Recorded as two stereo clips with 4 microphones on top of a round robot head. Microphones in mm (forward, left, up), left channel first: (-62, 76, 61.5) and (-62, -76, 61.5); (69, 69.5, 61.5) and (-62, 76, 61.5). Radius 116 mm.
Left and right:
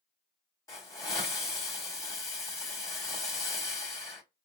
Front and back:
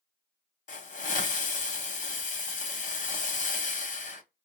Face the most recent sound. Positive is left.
turn(degrees=20)